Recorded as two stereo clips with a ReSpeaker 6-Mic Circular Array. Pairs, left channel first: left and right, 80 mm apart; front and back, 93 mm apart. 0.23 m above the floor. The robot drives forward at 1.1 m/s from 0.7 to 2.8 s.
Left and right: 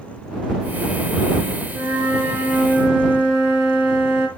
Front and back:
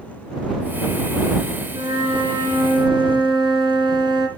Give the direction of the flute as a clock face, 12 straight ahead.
5 o'clock.